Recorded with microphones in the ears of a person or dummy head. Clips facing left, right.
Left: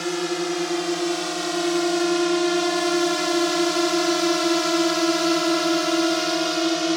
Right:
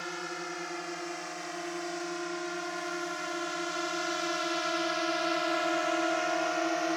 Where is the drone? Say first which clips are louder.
Left 15 dB; 60° left (ahead or behind); by 7.0 s 50° left (ahead or behind).